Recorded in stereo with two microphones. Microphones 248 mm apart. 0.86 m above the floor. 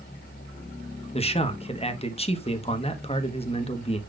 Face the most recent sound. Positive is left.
turn(degrees=20)  # may be behind; listen again after turning